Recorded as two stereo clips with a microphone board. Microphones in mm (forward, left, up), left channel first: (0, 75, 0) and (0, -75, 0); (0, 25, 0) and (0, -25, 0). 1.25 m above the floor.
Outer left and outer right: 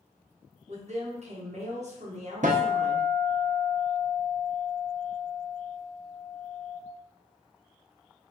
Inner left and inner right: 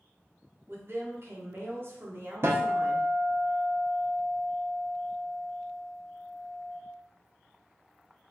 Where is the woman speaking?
50° right (ahead or behind), 0.9 m.